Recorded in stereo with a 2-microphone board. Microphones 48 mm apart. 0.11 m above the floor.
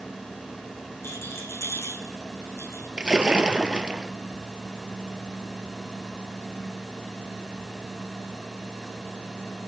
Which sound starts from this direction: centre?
A splash, at 3.0 s.